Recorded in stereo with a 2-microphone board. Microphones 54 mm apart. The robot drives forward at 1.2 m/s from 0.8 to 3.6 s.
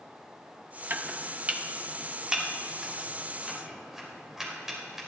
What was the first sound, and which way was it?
Chopping, 35° right (ahead or behind).